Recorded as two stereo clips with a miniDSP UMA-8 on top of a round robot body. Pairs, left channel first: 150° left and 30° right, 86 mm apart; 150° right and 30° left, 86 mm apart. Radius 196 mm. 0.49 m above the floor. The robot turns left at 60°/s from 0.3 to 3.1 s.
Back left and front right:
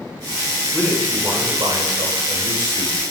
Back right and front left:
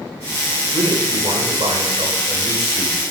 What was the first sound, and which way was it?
A man speaking, 65° left.